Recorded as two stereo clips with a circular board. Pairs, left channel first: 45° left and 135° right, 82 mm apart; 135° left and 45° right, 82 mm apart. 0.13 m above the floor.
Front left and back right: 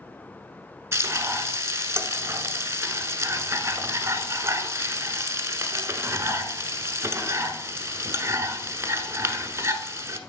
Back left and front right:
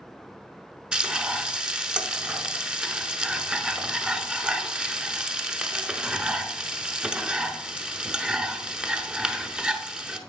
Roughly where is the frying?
Behind right.